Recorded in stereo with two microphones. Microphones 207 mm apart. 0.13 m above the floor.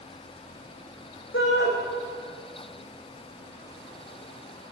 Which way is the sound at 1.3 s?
70° left (ahead or behind).